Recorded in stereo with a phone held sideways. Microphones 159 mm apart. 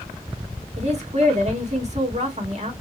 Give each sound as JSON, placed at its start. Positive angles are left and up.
{"t": 0.8, "sound": "a woman speaking", "side_deg": -45, "distance_m": 2.0}